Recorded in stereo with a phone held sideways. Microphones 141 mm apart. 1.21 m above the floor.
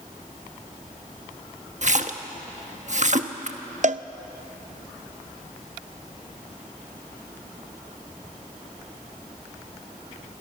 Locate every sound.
1.8 s a splash: 55° right (ahead or behind), 1.1 m
3.8 s a cowbell: 55° right (ahead or behind), 0.6 m